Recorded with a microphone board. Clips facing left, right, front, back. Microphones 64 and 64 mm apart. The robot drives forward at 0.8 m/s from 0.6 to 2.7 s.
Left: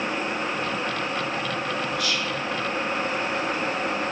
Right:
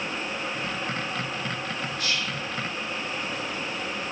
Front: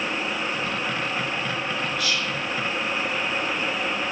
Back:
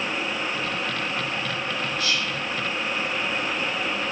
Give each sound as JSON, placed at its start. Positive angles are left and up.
{"t": 2.0, "sound": "whispering", "azimuth_deg": -135, "distance_m": 3.5}